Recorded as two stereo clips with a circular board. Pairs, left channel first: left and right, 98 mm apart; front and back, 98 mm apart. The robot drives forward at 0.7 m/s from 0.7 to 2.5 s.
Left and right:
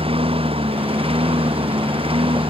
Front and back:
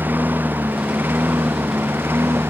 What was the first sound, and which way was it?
A lawn mower, 110° right.